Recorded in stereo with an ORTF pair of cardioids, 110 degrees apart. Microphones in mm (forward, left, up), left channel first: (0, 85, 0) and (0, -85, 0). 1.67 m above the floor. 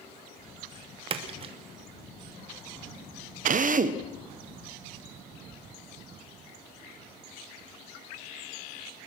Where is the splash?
35° right, 2.5 m.